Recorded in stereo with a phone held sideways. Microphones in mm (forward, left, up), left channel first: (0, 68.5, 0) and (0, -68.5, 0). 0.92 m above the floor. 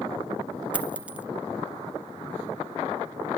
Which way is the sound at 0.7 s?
10° right (ahead or behind).